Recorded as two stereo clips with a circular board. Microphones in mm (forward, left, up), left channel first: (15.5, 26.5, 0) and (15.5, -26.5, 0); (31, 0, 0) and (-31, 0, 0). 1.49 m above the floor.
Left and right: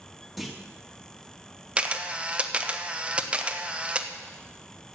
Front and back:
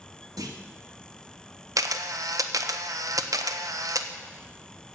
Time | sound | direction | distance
0.4 | a clunk | straight behind | 1.8 m
1.8 | a camera shutter | 160° right | 1.0 m